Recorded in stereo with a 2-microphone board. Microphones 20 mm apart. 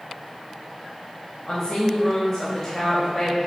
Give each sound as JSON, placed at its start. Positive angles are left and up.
{"t": 1.5, "sound": "a woman speaking", "side_deg": 45, "distance_m": 1.8}